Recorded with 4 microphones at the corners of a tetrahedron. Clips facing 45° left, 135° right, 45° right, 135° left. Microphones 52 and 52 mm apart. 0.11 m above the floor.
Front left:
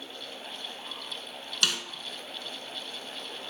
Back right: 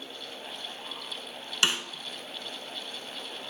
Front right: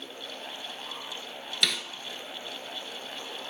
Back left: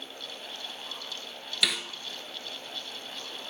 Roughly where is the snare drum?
Behind right.